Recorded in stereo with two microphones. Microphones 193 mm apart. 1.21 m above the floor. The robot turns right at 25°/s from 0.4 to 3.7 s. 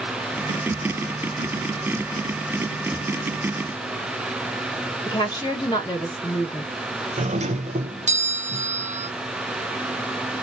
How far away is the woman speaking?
About 1.5 m.